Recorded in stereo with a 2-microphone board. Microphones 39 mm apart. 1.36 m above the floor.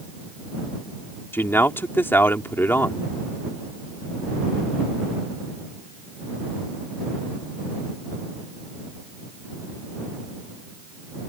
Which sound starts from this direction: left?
A man speaking, at 1.3 s.